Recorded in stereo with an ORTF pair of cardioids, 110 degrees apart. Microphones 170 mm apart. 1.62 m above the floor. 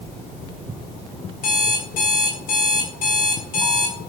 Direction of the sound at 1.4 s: 65° left.